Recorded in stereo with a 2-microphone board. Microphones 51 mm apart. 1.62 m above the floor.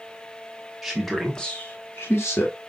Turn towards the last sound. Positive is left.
turn(degrees=65)  # may be behind; listen again after turning